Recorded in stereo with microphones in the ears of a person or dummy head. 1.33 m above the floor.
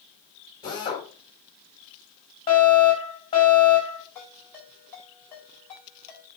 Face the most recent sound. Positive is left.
turn(degrees=5)  # may be behind; listen again after turning